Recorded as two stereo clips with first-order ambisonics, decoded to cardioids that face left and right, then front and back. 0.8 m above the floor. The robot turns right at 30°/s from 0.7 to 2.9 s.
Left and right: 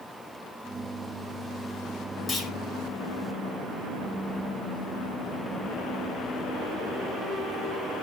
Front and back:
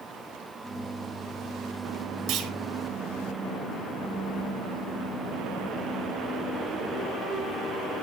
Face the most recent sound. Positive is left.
turn(degrees=-175)